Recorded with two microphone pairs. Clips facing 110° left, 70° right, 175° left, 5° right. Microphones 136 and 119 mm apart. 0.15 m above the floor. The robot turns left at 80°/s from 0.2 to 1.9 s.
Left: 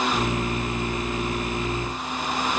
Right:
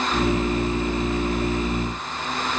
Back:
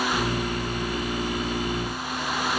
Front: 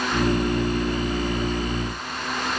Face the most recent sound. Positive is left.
No sound to turn to.